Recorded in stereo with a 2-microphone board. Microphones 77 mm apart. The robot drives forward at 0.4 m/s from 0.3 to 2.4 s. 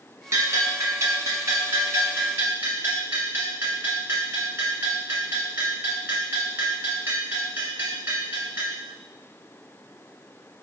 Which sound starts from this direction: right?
A bell, at 0.3 s.